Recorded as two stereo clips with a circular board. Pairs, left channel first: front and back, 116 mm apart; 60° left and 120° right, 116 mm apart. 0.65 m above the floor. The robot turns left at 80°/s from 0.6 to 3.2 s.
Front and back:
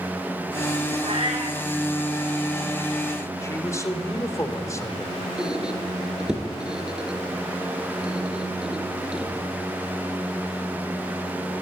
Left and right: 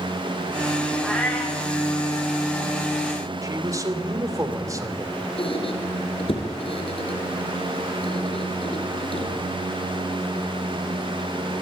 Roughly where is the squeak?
Left.